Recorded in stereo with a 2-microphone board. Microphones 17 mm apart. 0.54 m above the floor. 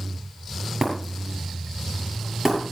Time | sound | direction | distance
0.8 | breaking glass | 25° right (ahead or behind) | 7.5 m